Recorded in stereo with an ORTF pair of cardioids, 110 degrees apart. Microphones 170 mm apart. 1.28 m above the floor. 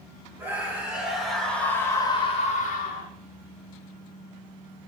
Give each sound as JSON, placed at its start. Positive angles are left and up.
{"t": 0.4, "sound": "a scream", "azimuth_deg": -10, "distance_m": 3.5}